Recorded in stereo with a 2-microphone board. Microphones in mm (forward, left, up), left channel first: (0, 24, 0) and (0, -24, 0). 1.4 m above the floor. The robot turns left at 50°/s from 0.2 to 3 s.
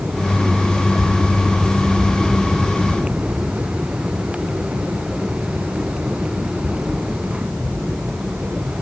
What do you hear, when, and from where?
Only background noise.